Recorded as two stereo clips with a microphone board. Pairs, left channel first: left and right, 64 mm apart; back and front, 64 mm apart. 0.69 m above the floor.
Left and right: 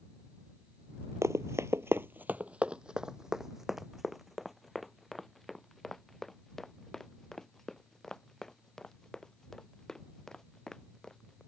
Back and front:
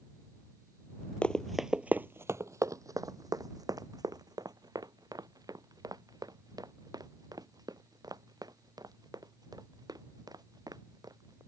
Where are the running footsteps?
115° right; by 11.4 s 10° left.